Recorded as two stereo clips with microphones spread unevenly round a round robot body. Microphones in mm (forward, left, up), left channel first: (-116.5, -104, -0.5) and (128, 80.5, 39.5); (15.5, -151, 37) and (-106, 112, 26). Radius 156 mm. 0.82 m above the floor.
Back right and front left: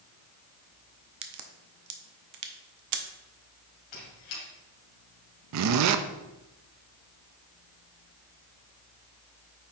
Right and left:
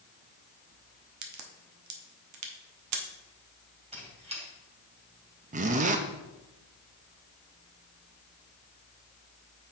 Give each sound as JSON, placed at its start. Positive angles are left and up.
{"t": 1.2, "sound": "a crack", "azimuth_deg": 75, "distance_m": 0.9}
{"t": 3.9, "sound": "a squeak", "azimuth_deg": -175, "distance_m": 3.0}
{"t": 5.5, "sound": "a zipper", "azimuth_deg": 60, "distance_m": 0.5}